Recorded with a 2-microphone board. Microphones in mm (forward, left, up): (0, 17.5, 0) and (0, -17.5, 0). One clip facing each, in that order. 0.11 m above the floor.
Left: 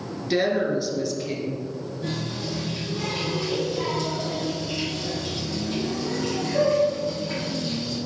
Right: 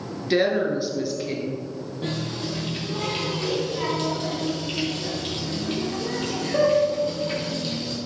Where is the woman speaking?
15° right (ahead or behind), 1.3 m.